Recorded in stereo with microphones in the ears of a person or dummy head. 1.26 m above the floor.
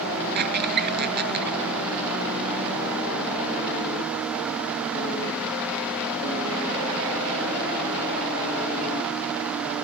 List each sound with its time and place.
0.3 s a squeak: 55° right (ahead or behind)